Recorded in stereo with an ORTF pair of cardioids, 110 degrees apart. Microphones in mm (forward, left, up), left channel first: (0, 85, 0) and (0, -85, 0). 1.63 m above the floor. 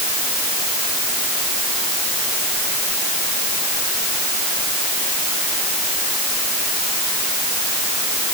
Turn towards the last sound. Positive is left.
No sound to turn to.